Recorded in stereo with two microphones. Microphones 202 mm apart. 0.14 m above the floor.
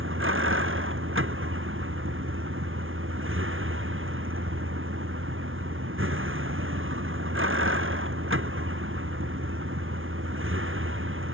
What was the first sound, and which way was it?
A vehicle, 85° right.